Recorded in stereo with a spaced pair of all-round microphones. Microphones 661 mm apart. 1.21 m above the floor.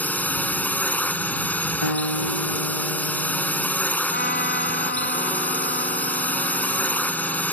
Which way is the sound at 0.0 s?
Centre (ahead or behind).